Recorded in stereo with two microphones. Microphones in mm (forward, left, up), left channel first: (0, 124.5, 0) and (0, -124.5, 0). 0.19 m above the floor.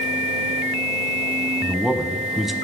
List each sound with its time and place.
1.6 s a man speaking: centre (ahead or behind), 1.0 m